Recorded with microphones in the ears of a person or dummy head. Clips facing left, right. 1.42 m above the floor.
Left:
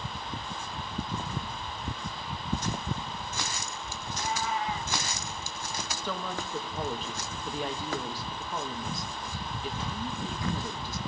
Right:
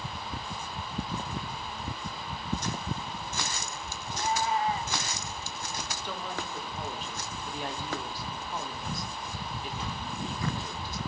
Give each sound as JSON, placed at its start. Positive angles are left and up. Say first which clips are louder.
{"t": 4.1, "sound": "a cat meowing", "louder": "right 3 dB", "side_deg": -30, "distance_m": 1.4}
{"t": 6.0, "sound": "a woman speaking", "louder": "left 3 dB", "side_deg": 80, "distance_m": 2.0}